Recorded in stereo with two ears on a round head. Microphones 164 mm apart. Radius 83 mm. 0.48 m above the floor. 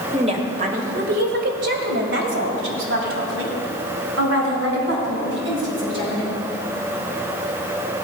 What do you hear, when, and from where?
0.1 s a woman speaking: 35° right (ahead or behind), 1.8 m; by 6.3 s 65° right (ahead or behind), 5 m